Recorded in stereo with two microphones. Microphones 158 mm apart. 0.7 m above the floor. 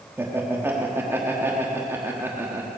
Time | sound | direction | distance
0.2 | laughter | 15° right (ahead or behind) | 1.4 m